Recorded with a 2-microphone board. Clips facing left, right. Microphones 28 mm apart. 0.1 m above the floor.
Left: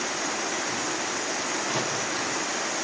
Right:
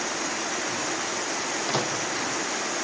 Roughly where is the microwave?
Right.